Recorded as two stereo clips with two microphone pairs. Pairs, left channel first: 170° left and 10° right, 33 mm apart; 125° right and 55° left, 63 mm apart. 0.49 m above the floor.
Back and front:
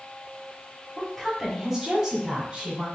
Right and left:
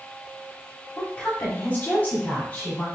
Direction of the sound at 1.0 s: 105° right.